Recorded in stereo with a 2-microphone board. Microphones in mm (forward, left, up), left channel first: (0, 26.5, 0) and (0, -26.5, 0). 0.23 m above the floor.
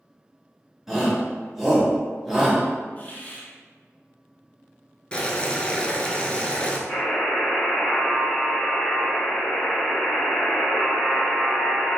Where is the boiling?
20° left (ahead or behind), 0.5 m.